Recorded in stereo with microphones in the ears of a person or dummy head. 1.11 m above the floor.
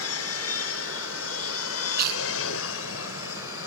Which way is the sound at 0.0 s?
70° left (ahead or behind).